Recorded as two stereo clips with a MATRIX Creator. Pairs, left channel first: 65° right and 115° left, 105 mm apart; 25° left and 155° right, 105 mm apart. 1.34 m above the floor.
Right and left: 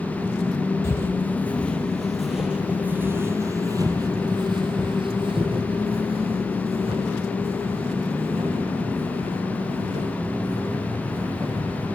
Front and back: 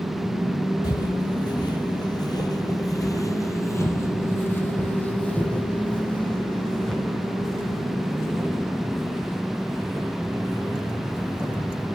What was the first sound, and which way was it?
Footsteps, 10° right.